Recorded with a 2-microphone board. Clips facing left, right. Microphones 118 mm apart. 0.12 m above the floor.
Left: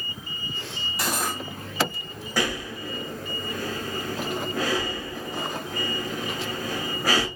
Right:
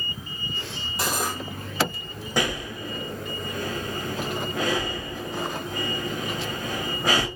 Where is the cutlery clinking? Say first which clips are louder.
Right 1 dB; 25° right (ahead or behind), 2.0 m.